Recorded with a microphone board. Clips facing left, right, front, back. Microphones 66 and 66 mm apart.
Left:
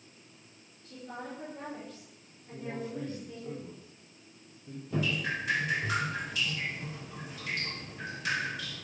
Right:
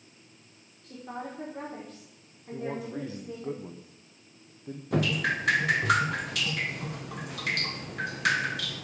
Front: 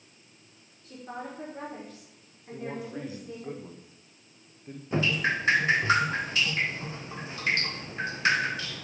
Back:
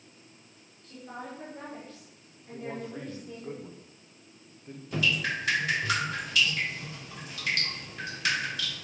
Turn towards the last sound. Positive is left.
turn(degrees=-60)